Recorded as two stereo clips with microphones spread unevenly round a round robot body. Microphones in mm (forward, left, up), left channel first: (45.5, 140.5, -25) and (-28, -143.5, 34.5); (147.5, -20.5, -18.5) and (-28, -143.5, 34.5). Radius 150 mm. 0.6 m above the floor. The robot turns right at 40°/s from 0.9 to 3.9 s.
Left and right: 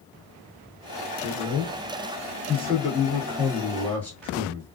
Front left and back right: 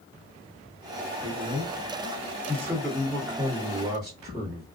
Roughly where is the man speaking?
Ahead left.